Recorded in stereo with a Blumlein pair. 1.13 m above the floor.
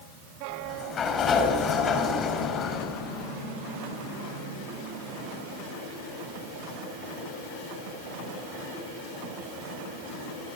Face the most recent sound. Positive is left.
turn(degrees=25)